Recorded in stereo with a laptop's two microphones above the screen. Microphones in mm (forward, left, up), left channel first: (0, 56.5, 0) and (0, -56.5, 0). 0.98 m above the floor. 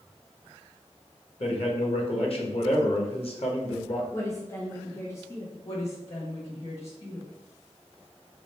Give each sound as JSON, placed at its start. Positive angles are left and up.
{"t": 1.4, "sound": "a man speaking", "side_deg": 55, "distance_m": 1.1}
{"t": 4.1, "sound": "a woman speaking", "side_deg": 20, "distance_m": 0.6}
{"t": 5.6, "sound": "a woman speaking", "side_deg": 60, "distance_m": 1.9}